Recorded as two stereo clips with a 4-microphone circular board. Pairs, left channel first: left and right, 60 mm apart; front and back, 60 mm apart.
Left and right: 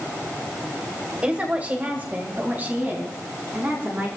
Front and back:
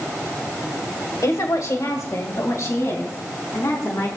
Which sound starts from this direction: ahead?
A woman speaking, at 1.2 s.